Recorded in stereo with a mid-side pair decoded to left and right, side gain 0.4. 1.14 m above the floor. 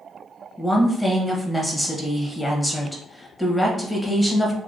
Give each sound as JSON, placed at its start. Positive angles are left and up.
{"t": 0.6, "sound": "a woman speaking", "azimuth_deg": 5, "distance_m": 1.1}